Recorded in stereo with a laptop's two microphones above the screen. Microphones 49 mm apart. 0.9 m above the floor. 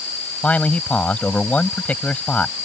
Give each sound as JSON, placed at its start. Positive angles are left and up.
{"t": 0.4, "sound": "a man speaking", "side_deg": 30}